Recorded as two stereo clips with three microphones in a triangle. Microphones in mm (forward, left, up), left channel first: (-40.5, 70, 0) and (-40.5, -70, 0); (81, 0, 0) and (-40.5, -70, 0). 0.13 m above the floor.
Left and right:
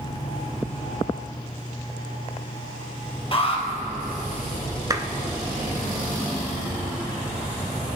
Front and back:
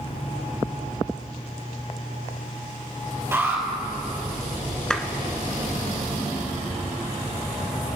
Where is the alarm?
135° left, 3.5 m.